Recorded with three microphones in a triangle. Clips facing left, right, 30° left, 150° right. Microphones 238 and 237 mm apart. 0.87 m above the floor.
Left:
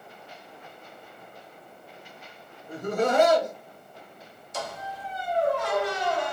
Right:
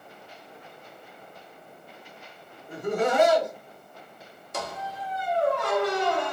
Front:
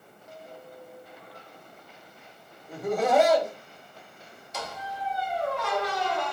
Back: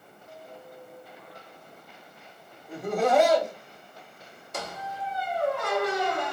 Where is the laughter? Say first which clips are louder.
Even, even; 120° left, 1.4 m.